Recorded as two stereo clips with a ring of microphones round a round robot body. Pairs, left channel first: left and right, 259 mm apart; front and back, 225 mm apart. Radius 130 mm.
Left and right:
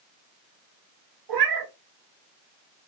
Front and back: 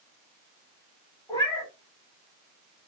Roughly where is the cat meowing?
Right.